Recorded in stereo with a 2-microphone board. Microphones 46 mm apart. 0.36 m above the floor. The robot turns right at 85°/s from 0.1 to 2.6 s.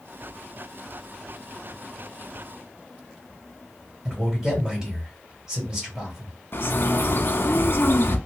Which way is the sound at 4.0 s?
15° right (ahead or behind).